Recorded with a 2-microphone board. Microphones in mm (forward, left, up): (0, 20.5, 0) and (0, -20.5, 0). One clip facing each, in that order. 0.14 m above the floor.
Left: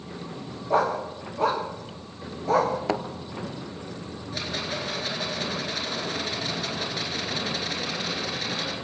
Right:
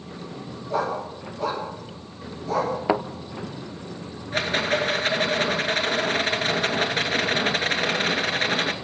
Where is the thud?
15° right (ahead or behind), 0.7 m.